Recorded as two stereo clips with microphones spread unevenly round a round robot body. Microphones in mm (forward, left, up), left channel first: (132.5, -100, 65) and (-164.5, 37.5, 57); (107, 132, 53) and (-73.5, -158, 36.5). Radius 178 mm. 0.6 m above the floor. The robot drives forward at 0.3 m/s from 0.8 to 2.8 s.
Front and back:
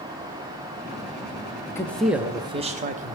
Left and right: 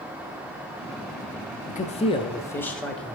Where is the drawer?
I don't hear a drawer.